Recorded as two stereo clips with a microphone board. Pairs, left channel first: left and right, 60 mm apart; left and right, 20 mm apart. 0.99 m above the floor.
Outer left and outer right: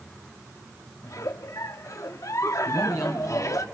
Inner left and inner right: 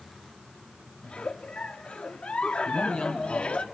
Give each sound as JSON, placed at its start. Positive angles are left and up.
{"t": 1.0, "sound": "a giggle", "side_deg": 65, "distance_m": 1.0}
{"t": 2.6, "sound": "a man speaking", "side_deg": 85, "distance_m": 5.0}